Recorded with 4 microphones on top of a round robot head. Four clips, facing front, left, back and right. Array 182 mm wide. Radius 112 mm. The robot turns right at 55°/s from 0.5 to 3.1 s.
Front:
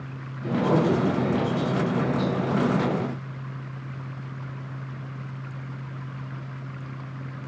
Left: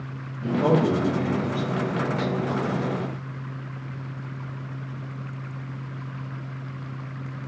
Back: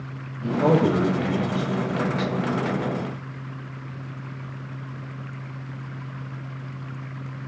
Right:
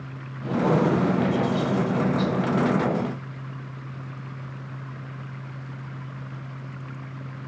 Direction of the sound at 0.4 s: 140° left.